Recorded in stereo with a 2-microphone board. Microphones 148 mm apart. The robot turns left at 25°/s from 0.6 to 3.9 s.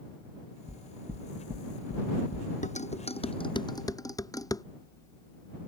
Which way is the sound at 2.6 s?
55° left (ahead or behind).